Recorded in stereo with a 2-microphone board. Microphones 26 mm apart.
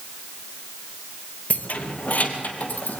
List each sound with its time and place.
1.5 s keys jangling: 65° left (ahead or behind), 1.6 m; by 3.0 s 75° left (ahead or behind), 3 m